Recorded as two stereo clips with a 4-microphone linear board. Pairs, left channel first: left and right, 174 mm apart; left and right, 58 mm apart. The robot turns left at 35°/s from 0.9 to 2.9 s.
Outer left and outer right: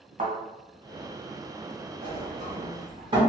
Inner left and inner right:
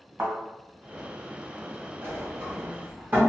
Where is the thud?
50° right (ahead or behind), 1.6 m.